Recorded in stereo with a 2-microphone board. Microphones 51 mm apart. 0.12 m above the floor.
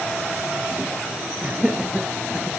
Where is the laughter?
15° right (ahead or behind), 2.5 m; by 2.5 s 20° right (ahead or behind), 1.9 m.